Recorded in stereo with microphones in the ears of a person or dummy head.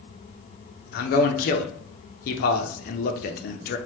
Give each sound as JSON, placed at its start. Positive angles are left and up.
{"t": 0.9, "sound": "a man speaking", "side_deg": 45, "distance_m": 0.6}